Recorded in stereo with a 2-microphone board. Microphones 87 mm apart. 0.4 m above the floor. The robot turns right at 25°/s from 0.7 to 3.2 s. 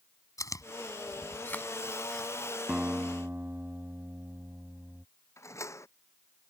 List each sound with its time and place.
0.4 s chewing: 40° left (ahead or behind); by 2.6 s 5° right (ahead or behind)
2.7 s a guitar: 15° right (ahead or behind); by 5.0 s 25° right (ahead or behind)
5.4 s a door slam: 35° left (ahead or behind)